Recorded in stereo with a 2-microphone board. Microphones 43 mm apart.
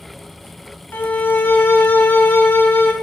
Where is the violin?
50° left (ahead or behind), 0.9 m.